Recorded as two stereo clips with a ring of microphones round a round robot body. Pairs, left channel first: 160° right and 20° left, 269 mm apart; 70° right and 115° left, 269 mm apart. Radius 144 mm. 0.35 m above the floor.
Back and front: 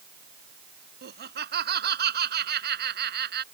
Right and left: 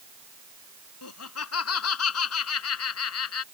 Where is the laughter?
30° right.